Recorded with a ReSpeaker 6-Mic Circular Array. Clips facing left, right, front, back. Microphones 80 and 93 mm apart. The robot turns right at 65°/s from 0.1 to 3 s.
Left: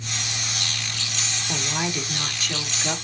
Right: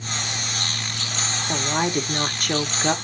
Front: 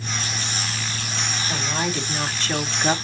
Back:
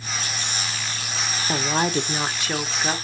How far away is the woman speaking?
About 1.1 m.